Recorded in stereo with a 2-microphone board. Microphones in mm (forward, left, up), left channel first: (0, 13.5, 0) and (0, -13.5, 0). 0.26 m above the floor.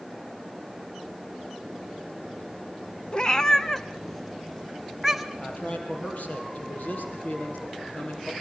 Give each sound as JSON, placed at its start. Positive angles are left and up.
{"t": 3.1, "sound": "a cat meowing", "side_deg": 30, "distance_m": 1.0}
{"t": 5.4, "sound": "a man speaking", "side_deg": 60, "distance_m": 6.0}